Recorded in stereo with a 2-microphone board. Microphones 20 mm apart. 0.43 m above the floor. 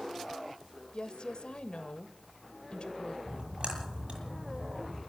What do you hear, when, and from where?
0.9 s a woman speaking: 55° left (ahead or behind), 1.8 m
3.3 s a splash: 60° right (ahead or behind), 9.5 m